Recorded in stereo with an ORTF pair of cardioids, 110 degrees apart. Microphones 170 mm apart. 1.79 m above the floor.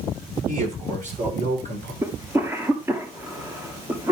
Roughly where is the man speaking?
Ahead right.